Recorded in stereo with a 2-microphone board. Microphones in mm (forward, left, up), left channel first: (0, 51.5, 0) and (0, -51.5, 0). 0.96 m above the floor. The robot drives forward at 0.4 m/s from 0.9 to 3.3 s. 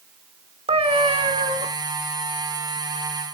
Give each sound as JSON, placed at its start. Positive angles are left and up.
{"t": 0.7, "sound": "a cat meowing", "side_deg": -65, "distance_m": 1.0}